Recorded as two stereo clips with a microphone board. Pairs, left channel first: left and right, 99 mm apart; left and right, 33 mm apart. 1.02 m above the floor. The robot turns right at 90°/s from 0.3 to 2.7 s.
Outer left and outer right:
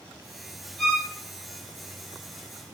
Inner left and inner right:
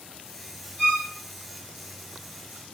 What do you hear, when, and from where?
0.8 s a violin: 5° left (ahead or behind), 1.3 m; by 1.1 s 20° right (ahead or behind), 1.3 m